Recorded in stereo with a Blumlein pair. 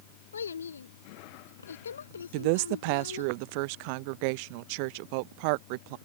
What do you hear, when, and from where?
0.3 s a child speaking: 70° left
2.3 s a woman speaking: 45° right